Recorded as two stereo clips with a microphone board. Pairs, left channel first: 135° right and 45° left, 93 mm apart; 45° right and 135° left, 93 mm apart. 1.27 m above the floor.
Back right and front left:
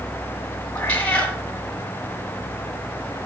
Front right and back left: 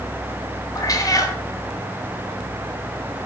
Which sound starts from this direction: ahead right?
A cat meowing, at 0.8 s.